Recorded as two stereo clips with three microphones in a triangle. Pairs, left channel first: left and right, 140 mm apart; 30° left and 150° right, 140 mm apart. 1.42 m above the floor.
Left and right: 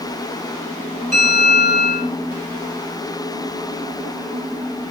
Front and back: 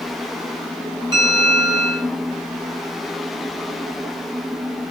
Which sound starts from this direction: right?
A bell, at 1.1 s.